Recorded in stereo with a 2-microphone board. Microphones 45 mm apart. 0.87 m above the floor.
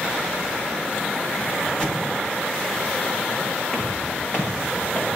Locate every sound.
1.8 s an explosion: 15° left (ahead or behind), 2 m
3.7 s footsteps: 45° left (ahead or behind), 9.5 m; by 5.1 s 60° left (ahead or behind), 9.5 m